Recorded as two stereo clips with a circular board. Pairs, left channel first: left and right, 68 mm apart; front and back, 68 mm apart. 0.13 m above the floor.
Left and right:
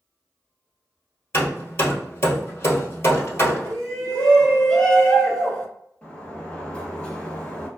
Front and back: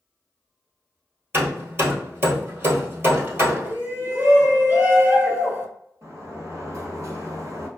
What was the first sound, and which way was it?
Hammering, 135° left.